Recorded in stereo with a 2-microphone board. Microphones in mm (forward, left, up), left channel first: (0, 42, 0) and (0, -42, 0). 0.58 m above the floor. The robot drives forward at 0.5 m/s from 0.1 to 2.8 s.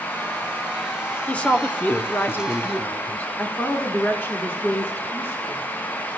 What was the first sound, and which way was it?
A woman speaking, 15° left (ahead or behind).